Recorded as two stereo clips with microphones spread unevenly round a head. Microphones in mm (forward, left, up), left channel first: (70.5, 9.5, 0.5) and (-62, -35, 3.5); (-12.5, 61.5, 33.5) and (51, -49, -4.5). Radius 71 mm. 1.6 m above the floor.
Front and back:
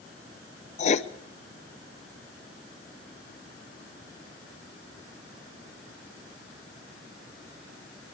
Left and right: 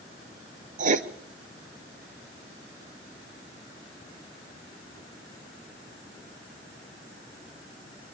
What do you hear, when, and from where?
0.8 s writing: 25° right, 1.0 m